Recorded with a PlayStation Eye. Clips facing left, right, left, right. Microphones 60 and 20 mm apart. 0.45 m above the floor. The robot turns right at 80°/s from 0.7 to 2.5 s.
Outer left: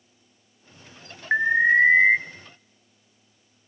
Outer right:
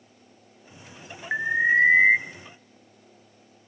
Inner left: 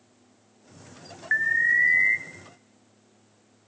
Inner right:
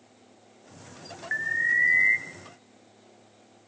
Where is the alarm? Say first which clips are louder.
Outer left 3 dB, inner left 4 dB; 25° left (ahead or behind), 0.6 m; by 2.2 s centre (ahead or behind), 0.6 m.